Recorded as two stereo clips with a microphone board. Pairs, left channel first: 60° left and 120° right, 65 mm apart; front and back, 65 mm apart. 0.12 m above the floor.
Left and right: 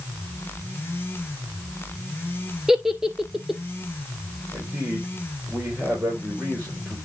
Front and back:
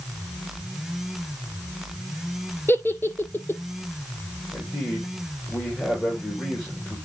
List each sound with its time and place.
2.7 s a giggle: 35° right, 0.9 m
4.5 s a man speaking: 55° right, 7.5 m